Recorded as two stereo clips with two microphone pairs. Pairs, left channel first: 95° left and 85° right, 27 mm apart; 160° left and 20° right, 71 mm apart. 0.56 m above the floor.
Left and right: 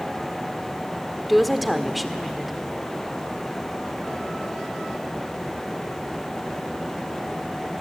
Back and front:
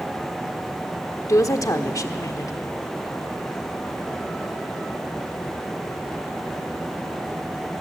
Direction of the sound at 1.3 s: Straight behind.